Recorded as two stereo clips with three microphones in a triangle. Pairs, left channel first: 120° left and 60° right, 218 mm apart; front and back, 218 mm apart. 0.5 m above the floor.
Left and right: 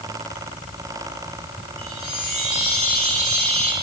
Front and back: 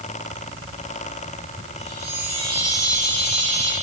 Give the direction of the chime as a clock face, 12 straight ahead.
2 o'clock.